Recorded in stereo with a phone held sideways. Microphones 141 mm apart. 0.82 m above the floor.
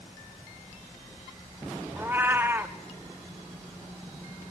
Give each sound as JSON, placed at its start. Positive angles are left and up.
{"t": 2.0, "sound": "a cat meowing", "side_deg": -15, "distance_m": 0.6}